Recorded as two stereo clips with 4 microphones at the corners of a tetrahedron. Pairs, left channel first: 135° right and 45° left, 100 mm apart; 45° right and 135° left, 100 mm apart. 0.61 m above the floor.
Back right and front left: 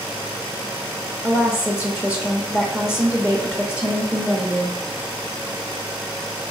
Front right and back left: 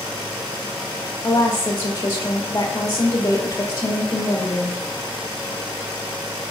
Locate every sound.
1.2 s a woman speaking: 25° right, 1.2 m